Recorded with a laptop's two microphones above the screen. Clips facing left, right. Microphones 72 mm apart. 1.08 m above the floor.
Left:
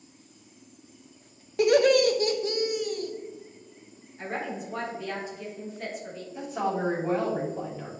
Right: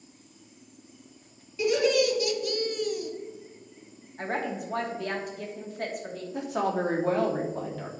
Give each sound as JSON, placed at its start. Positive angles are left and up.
{"t": 1.6, "sound": "laughter", "side_deg": 60, "distance_m": 1.2}
{"t": 4.2, "sound": "a woman speaking", "side_deg": -55, "distance_m": 2.5}
{"t": 6.3, "sound": "a woman speaking", "side_deg": -70, "distance_m": 2.5}